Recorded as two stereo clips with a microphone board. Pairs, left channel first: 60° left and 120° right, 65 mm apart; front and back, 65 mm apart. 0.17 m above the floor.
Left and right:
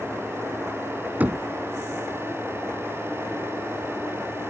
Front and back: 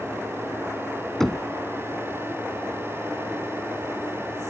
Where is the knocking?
80° right.